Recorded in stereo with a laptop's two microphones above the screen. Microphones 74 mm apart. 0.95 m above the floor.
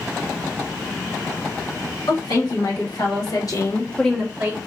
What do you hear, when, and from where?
2.1 s a woman speaking: 75° left (ahead or behind), 1.8 m; by 4.6 s 35° right (ahead or behind), 0.7 m